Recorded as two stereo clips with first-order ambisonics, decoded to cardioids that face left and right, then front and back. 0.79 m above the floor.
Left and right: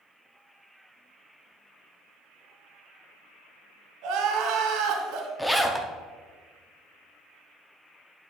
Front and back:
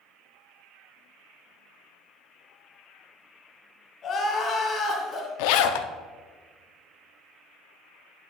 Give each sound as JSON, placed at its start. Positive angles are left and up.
{"t": 4.0, "sound": "crying", "azimuth_deg": -65, "distance_m": 1.6}
{"t": 5.4, "sound": "a zipper", "azimuth_deg": 5, "distance_m": 0.5}